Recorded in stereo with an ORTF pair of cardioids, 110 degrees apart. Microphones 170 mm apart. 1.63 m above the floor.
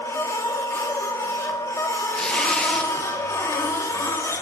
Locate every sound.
0.0 s a machine running: 15° left, 2.5 m
2.1 s tearing paper: 5° left, 1.9 m